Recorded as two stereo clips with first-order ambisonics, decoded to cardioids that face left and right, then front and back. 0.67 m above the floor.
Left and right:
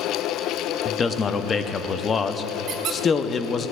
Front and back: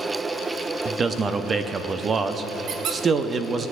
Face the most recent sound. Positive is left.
turn(degrees=-135)